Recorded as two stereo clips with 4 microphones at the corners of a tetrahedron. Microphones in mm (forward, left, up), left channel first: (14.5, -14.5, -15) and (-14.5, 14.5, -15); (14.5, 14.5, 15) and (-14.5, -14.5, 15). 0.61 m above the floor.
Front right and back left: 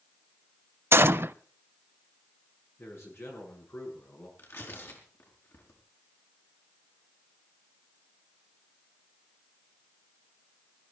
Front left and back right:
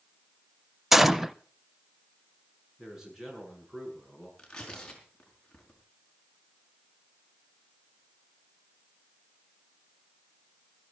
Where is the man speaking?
60° right, 8 m.